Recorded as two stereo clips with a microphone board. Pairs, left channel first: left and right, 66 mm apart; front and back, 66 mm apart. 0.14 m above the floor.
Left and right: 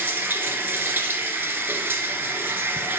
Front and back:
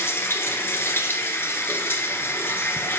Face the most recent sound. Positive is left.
turn(degrees=-40)